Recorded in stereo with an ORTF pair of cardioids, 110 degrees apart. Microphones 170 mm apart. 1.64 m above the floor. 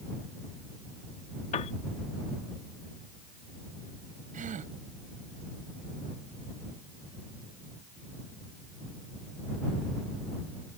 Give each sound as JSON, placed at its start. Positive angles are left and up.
{"t": 1.5, "sound": "a piano", "azimuth_deg": 45}
{"t": 4.3, "sound": "a gasp", "azimuth_deg": -50}